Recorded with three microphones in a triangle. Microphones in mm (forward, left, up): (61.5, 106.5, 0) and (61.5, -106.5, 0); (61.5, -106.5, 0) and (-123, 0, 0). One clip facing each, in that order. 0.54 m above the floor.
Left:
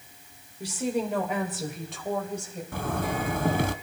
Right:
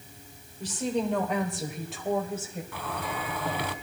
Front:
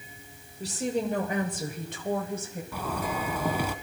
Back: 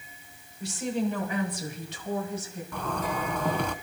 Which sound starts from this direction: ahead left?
A zipper, at 2.7 s.